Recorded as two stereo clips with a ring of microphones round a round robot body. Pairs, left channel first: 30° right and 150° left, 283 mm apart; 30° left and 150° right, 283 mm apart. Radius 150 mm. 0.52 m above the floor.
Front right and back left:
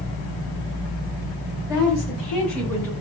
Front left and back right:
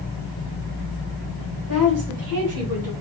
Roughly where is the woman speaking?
Behind right.